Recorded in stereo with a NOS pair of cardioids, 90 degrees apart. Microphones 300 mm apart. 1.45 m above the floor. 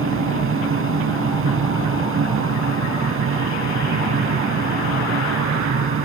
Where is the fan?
45° right.